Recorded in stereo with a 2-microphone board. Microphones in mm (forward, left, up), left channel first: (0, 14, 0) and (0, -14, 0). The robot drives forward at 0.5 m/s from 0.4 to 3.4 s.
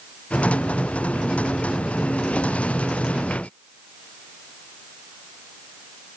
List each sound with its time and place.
Only background noise.